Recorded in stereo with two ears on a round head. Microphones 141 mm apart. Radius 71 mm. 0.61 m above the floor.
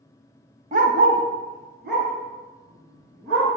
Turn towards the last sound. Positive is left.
turn(degrees=-70)  # may be behind; listen again after turning